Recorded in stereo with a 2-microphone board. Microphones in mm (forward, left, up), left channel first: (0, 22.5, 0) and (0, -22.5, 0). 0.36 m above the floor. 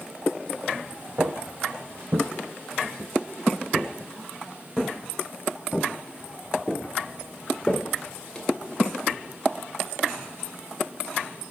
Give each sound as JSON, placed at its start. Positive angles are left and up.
{"t": 1.2, "sound": "footsteps", "side_deg": -70, "distance_m": 0.9}